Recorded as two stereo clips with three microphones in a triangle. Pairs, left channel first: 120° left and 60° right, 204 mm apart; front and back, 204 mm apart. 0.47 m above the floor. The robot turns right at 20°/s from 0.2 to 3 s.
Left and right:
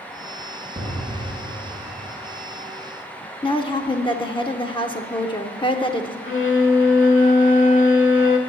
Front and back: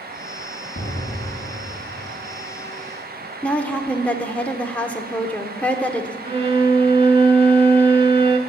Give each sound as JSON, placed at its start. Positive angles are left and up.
{"t": 0.8, "sound": "an explosion", "azimuth_deg": 30, "distance_m": 3.0}
{"t": 3.4, "sound": "a woman speaking", "azimuth_deg": 75, "distance_m": 0.8}
{"t": 6.2, "sound": "a violin", "azimuth_deg": 120, "distance_m": 1.0}